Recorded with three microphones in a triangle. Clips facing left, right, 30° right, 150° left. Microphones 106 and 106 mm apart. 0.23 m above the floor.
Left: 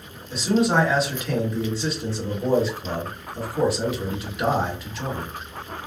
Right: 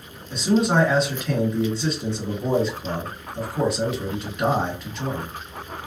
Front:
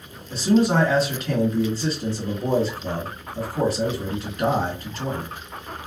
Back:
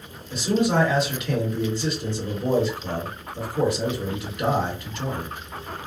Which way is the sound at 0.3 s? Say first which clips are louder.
Even, front 3 dB; 5° left.